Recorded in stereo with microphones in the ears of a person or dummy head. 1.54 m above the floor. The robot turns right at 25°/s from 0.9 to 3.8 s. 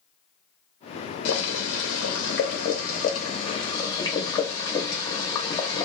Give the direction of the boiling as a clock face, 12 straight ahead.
9 o'clock.